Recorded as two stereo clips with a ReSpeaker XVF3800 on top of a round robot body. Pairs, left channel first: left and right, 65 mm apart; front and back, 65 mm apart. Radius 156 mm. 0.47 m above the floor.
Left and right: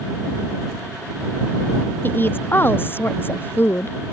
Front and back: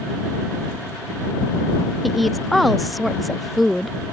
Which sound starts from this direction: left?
A woman speaking, at 2.0 s.